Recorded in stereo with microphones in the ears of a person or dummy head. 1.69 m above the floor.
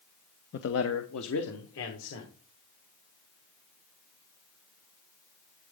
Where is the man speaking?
60° left (ahead or behind), 0.6 m; by 2.3 s 70° left (ahead or behind), 1.8 m.